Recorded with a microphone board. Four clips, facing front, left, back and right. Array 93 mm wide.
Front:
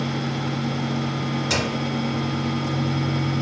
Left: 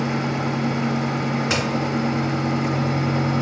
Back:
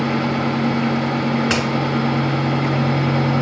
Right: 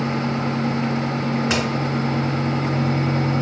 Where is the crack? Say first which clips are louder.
Right 2 dB, back 5 dB; 175° right, 1.3 m.